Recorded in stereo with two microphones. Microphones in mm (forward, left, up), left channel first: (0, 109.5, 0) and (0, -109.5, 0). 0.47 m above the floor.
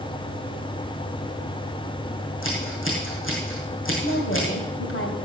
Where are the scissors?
65° left (ahead or behind), 4.5 m.